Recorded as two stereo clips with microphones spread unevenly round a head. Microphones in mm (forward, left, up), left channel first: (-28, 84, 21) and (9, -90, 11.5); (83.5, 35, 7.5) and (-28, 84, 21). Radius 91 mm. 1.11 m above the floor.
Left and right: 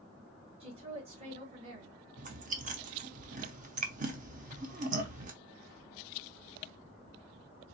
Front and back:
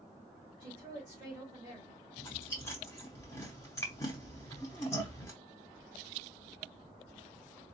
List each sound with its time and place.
0.6 s a woman speaking: 130° right, 2 m
2.2 s chewing: 95° right, 0.8 m